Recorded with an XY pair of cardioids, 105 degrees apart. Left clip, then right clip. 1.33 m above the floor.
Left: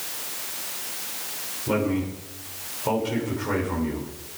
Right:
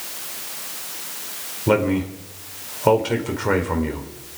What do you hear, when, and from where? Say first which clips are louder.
1.7 s a man speaking: right 6 dB; 65° right, 4 m